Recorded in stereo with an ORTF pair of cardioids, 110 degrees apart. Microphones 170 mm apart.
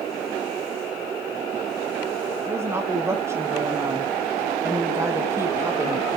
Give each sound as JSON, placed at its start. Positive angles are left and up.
{"t": 2.5, "sound": "a woman speaking", "azimuth_deg": -15, "distance_m": 1.2}